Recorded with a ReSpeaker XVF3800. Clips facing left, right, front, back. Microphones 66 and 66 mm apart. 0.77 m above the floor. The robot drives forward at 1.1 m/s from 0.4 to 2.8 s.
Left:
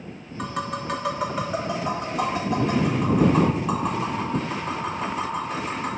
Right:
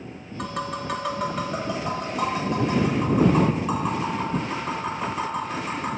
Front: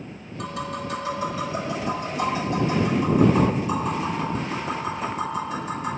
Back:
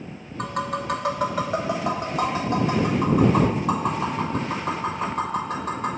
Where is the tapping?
175° left, 0.9 m; by 5.9 s straight behind, 3.5 m.